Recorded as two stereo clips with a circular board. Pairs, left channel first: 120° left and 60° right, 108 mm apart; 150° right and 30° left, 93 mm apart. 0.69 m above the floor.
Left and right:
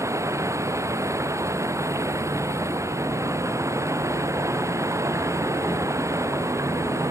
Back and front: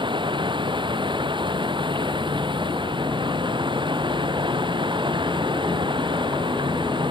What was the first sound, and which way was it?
Running water, straight ahead.